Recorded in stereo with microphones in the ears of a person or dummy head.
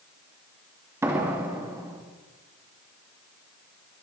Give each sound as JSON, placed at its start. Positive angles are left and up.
{"t": 1.0, "sound": "a door slam", "side_deg": -10, "distance_m": 2.5}